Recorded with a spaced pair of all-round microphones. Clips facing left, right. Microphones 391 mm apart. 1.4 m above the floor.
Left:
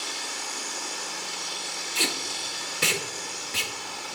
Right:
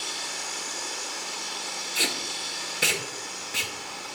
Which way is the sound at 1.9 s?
10° left (ahead or behind).